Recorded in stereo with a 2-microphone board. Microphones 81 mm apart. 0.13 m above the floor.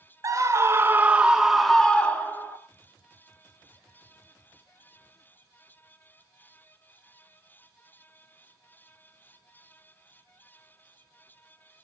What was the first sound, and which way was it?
A scream, 40° right (ahead or behind).